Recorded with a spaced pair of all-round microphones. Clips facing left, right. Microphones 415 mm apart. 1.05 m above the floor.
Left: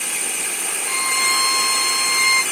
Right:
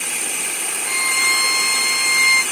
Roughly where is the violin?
Right.